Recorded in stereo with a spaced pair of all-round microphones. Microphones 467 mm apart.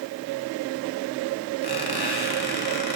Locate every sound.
1.6 s a squeak: 50° left (ahead or behind), 1.3 m